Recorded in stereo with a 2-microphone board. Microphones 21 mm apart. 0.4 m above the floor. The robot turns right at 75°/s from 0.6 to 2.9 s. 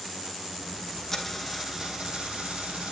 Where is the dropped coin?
160° left, 3.5 m; by 2.9 s 65° right, 3.5 m.